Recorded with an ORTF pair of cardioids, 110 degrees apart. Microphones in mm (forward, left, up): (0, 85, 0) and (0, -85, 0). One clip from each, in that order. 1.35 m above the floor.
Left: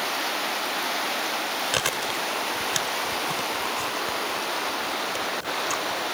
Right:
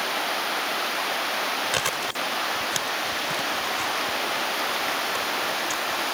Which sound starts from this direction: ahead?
Chewing, at 1.7 s.